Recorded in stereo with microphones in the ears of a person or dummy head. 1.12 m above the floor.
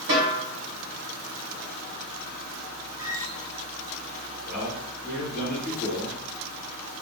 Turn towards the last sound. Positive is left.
turn(degrees=-5)  # may be behind; listen again after turning